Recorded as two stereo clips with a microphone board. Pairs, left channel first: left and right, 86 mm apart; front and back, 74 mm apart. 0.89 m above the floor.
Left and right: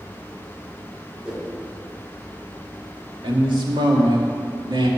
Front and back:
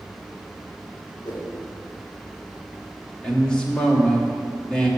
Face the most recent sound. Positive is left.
turn(degrees=-75)